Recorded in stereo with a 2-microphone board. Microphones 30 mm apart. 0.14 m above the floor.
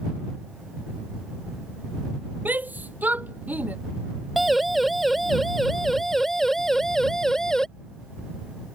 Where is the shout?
70° right (ahead or behind); by 3.8 s 60° right (ahead or behind).